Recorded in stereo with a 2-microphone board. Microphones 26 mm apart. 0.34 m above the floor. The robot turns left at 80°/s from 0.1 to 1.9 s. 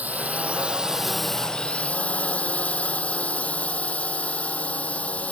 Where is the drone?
95° right; by 5.3 s 125° left.